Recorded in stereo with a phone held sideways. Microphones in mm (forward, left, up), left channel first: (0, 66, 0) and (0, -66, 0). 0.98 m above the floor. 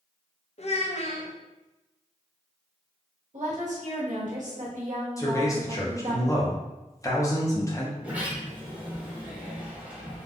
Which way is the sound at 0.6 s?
55° left (ahead or behind).